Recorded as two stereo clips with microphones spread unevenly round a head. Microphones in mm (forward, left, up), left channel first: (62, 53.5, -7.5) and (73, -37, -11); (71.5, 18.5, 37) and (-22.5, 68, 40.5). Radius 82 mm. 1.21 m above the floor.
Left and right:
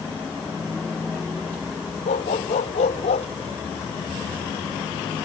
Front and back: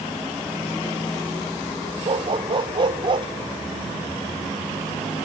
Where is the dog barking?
110° left.